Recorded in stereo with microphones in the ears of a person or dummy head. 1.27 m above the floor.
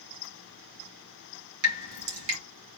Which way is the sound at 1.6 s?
70° right (ahead or behind).